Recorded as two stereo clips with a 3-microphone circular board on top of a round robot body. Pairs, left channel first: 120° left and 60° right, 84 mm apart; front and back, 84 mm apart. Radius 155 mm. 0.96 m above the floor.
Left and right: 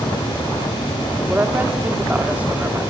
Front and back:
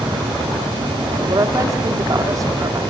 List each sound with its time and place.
1.3 s a woman speaking: 130° right, 3 m